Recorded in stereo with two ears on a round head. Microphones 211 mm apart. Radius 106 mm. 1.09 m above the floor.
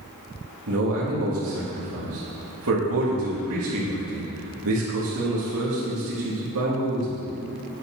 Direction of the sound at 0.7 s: 65° right (ahead or behind).